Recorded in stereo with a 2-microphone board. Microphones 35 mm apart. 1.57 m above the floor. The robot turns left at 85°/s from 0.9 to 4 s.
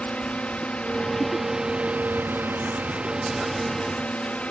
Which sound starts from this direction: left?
A drone, at 0.0 s.